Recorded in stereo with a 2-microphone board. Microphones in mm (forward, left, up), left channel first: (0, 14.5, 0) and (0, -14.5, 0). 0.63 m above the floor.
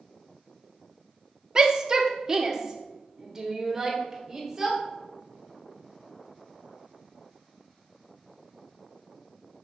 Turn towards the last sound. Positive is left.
turn(degrees=-15)  # may be behind; listen again after turning